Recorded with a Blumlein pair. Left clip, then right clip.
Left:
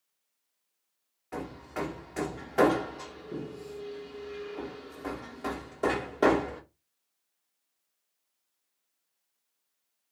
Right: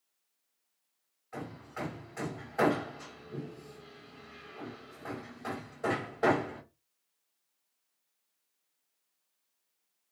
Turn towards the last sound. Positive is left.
turn(degrees=45)